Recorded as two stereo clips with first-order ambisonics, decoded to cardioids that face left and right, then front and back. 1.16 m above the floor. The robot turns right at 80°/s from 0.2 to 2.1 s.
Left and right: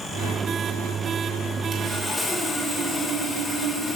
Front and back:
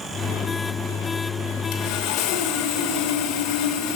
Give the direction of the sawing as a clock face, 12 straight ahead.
1 o'clock.